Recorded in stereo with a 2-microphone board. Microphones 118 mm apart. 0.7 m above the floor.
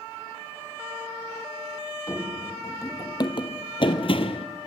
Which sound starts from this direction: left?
Running footsteps, at 2.1 s.